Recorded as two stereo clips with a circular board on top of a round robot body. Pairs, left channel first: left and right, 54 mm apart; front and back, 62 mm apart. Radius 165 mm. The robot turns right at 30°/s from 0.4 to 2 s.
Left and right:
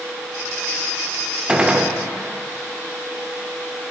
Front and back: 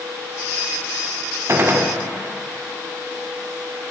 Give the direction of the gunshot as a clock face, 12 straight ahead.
5 o'clock.